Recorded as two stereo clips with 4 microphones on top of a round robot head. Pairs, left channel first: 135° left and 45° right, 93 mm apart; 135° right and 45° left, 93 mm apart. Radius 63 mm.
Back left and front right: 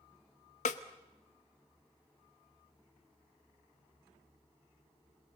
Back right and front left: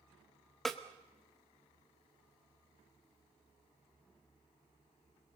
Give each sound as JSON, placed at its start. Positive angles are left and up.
{"t": 0.7, "sound": "a snare drum", "azimuth_deg": 135, "distance_m": 1.0}